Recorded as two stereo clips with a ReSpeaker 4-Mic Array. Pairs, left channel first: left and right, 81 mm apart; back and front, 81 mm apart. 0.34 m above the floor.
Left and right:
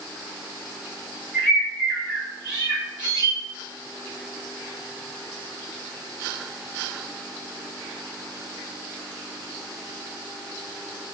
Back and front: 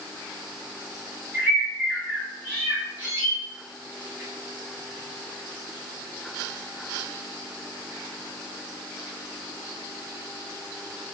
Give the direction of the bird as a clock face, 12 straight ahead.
1 o'clock.